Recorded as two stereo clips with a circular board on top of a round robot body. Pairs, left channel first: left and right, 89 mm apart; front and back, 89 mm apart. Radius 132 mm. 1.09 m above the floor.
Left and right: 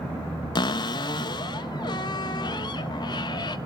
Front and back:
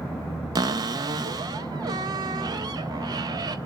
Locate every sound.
0.6 s a cupboard door: 130° left, 0.7 m